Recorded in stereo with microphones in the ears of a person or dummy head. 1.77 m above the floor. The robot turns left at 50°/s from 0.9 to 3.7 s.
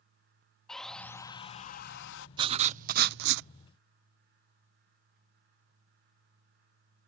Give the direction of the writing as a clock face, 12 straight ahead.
1 o'clock.